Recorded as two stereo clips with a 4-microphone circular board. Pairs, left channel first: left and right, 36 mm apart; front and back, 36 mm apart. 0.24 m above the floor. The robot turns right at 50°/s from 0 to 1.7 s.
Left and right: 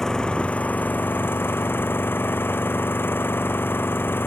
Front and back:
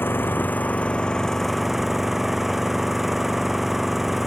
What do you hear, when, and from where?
0.0 s an engine running: 15° left; by 4.3 s 100° left